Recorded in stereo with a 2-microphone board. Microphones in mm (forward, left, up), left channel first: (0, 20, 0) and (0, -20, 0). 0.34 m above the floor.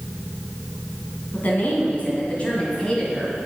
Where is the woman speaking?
45° left (ahead or behind), 2.5 m; by 3.4 s 15° left (ahead or behind), 1.8 m.